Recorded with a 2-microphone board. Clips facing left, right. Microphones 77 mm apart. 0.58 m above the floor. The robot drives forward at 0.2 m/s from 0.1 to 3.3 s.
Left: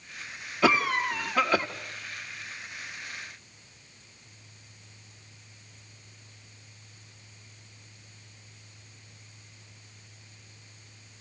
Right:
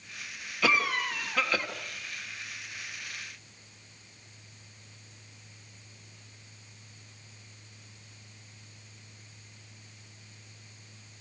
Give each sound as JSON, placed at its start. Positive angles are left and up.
{"t": 0.6, "sound": "a cough", "side_deg": 20, "distance_m": 1.3}